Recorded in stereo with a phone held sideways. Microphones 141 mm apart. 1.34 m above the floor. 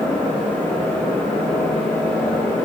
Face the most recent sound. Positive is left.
turn(degrees=10)  # may be behind; listen again after turning